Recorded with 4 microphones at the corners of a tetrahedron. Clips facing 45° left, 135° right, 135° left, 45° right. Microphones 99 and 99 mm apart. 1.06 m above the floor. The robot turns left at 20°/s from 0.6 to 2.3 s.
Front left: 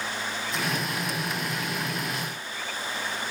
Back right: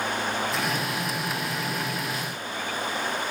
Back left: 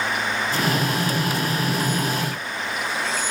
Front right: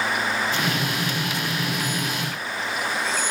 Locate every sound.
Only background noise.